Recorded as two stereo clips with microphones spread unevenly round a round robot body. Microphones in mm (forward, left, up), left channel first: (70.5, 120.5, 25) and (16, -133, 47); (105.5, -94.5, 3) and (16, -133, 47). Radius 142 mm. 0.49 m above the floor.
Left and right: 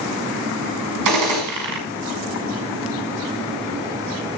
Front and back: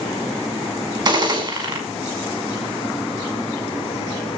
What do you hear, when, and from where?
1.1 s a gunshot: 105° right, 5.5 m